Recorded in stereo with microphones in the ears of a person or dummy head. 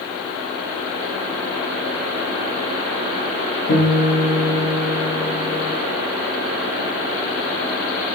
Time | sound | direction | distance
3.7 | a guitar | 90° left | 1.3 m